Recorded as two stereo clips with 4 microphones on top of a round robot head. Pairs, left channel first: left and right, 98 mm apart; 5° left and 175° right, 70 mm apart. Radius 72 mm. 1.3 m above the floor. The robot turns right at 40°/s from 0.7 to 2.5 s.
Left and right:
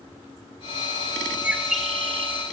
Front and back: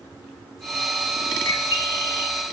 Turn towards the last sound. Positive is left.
turn(degrees=30)